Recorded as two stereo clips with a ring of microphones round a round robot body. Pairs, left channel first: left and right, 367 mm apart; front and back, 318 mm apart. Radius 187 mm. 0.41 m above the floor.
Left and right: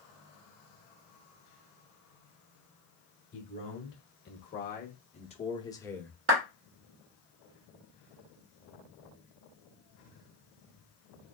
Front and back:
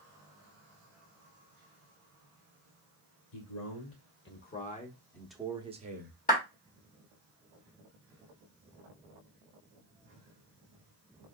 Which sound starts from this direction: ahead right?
A clap, at 6.3 s.